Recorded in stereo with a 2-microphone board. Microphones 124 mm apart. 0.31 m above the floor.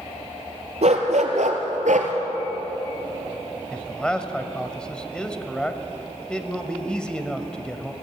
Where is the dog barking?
70° right (ahead or behind), 2.5 m; by 2.1 s 80° right, 2 m.